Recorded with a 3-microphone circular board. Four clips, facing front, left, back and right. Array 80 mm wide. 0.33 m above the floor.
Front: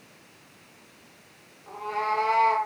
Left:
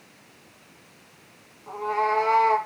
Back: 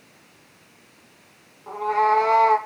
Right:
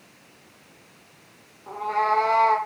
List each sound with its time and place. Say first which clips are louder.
1.7 s a cat meowing: right 1 dB, back 9 dB; 155° right, 5 m